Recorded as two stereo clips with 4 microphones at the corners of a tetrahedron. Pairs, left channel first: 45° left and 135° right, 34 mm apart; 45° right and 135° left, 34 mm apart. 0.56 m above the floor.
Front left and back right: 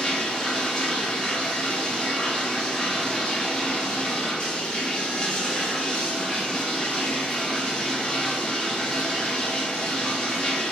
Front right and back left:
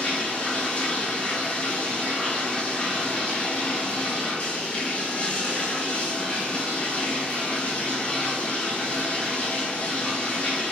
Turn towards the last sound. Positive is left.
turn(degrees=-10)